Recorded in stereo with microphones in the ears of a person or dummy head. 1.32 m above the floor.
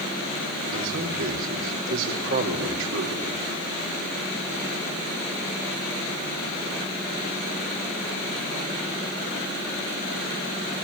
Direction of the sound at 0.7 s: 75° right (ahead or behind).